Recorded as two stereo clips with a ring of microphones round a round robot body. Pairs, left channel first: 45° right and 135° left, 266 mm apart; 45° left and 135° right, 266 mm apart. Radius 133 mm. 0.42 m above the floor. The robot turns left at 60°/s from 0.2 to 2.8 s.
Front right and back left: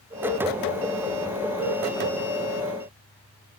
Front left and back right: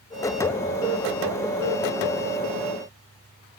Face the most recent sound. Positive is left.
No sound to turn to.